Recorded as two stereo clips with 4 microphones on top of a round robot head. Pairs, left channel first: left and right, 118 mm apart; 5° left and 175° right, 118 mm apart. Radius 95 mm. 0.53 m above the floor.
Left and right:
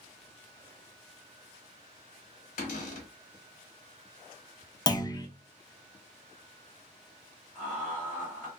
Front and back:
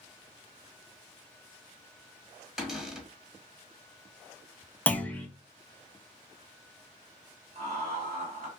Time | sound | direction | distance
2.6 | a cupboard door | 100° left | 1.0 m
4.9 | a clunk | 75° left | 0.6 m
7.5 | laughter | 170° left | 1.6 m